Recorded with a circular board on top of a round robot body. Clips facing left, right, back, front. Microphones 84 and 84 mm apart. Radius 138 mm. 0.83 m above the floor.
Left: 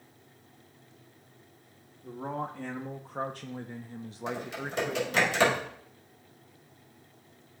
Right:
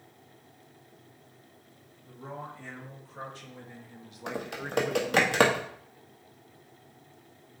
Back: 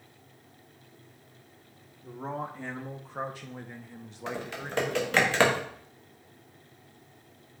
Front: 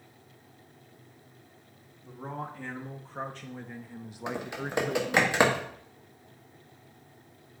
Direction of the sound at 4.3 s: 70° right.